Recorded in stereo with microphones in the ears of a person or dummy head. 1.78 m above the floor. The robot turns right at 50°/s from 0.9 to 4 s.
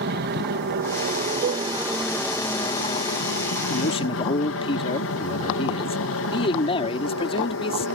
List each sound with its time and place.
0.0 s an aircraft: 65° right; by 8.0 s 90° left
1.4 s a cowbell: 40° right (ahead or behind); by 1.7 s 45° right (ahead or behind)
3.7 s a man speaking: 45° left (ahead or behind); by 7.9 s 30° left (ahead or behind)